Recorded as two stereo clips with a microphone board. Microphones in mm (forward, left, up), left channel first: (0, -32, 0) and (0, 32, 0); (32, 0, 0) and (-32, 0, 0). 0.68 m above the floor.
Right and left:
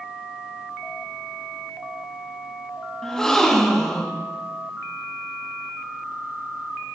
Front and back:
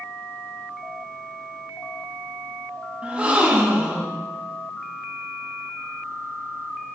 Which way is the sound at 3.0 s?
155° right.